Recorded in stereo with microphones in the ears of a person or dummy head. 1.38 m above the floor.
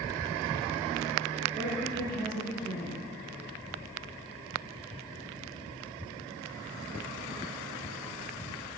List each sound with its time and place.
1.5 s a woman speaking: 50° right (ahead or behind), 2.5 m